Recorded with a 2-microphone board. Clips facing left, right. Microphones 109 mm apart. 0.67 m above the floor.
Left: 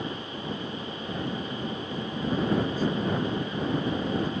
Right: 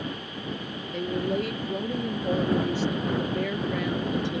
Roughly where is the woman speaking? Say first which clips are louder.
Right 9 dB; right.